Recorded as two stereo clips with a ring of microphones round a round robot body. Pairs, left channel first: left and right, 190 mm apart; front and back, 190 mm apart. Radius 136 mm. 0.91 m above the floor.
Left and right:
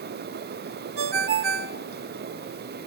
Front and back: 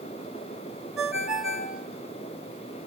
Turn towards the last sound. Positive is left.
turn(degrees=-90)